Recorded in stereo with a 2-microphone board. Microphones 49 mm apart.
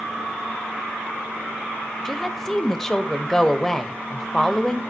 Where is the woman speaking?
5° left (ahead or behind), 1.2 m.